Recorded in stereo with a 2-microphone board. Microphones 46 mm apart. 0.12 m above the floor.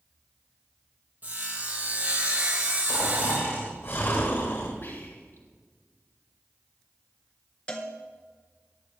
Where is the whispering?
60° left (ahead or behind), 3.5 m.